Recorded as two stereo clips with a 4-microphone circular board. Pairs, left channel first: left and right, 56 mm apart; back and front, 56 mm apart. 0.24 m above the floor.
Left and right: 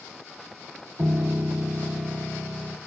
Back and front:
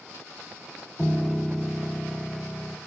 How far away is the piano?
About 0.7 m.